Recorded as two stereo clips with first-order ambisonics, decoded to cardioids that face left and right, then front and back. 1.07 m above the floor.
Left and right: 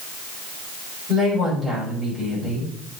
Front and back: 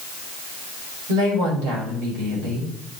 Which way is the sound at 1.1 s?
175° right.